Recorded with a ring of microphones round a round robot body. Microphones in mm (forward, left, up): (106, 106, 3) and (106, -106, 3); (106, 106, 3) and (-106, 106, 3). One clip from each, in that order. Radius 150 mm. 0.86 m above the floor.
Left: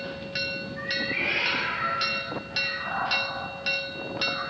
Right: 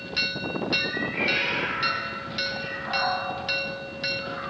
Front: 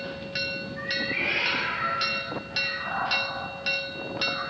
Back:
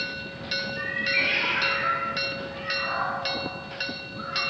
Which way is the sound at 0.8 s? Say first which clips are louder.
Left 1 dB, back 3 dB; 115° left.